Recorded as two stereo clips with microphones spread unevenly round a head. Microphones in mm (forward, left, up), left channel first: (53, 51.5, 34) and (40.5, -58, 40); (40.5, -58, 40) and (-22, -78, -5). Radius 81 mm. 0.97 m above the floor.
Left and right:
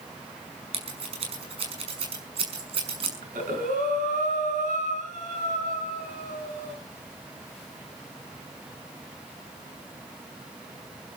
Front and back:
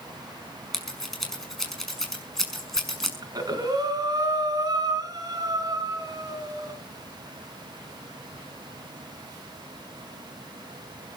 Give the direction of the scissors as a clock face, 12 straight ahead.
2 o'clock.